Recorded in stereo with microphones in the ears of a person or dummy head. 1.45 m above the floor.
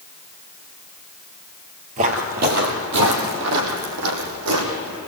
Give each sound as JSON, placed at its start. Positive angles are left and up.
{"t": 2.0, "sound": "footsteps", "side_deg": -40, "distance_m": 1.9}